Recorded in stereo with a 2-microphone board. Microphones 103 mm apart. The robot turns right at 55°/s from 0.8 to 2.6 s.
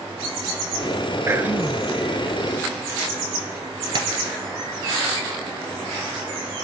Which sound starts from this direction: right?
Tapping, at 4.0 s.